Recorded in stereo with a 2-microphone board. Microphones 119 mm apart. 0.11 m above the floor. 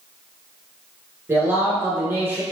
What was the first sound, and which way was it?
A man speaking, 20° right (ahead or behind).